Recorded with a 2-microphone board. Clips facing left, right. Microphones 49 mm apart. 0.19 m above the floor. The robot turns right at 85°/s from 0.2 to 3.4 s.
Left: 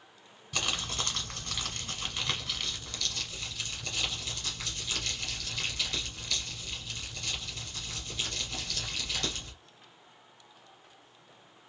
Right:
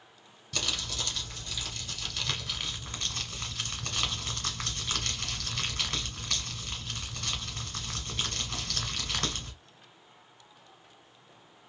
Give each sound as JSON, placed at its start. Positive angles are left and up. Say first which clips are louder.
{"t": 0.5, "sound": "crumpling", "louder": "left 1 dB", "azimuth_deg": 20, "distance_m": 1.8}